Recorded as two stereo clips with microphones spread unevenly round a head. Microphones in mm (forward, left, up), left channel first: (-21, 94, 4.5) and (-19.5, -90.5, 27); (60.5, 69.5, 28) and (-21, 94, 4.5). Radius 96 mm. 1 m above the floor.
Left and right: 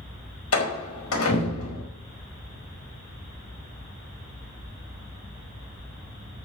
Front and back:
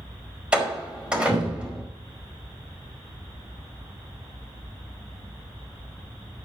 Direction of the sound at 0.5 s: 85° left.